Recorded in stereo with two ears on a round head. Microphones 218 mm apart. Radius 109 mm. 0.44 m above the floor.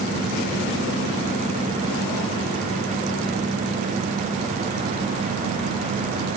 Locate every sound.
Only background noise.